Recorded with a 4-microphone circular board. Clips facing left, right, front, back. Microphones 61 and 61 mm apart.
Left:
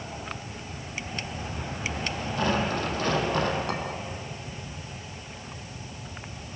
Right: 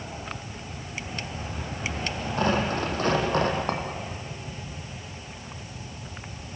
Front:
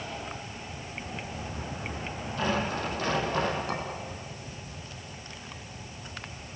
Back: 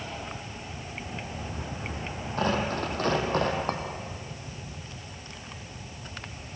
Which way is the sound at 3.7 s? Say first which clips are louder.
Right 2 dB, back 2 dB; 140° right.